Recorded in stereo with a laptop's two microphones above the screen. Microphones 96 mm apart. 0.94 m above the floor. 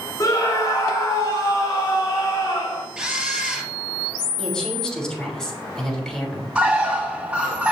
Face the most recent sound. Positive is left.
turn(degrees=-15)  # may be behind; listen again after turning